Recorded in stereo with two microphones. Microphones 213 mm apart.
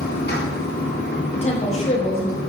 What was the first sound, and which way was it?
Running water, 45° left (ahead or behind).